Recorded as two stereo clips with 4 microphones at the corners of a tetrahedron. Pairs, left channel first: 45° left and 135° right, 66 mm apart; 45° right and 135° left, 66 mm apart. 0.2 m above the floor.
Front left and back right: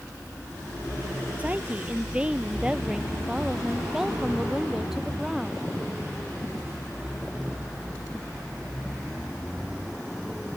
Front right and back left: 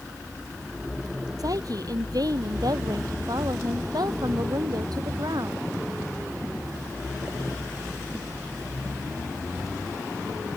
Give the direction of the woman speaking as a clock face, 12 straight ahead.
7 o'clock.